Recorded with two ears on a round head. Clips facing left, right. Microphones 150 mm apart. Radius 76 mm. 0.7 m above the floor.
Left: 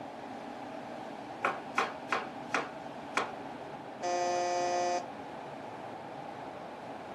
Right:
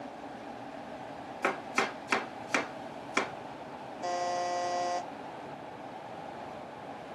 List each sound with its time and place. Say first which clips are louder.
1.4 s chopping: right 2 dB; 40° right (ahead or behind), 1.4 m
4.0 s a buzzer: left 1 dB; 10° left (ahead or behind), 0.7 m